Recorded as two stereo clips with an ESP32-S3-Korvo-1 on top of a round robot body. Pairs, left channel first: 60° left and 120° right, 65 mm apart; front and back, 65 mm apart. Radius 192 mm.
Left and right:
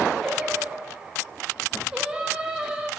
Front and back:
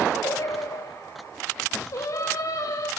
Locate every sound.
0.2 s singing: 40° right, 0.9 m